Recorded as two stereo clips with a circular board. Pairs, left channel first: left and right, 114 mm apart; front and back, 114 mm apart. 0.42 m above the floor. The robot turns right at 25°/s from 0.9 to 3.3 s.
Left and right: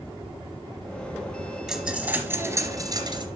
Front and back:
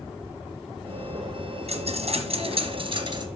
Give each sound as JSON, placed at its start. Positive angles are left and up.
{"t": 1.7, "sound": "a dropped coin", "azimuth_deg": -175, "distance_m": 2.0}